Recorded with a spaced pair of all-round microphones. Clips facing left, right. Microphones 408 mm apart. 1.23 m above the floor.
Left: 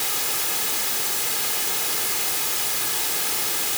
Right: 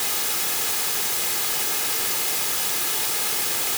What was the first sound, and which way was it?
Only background noise.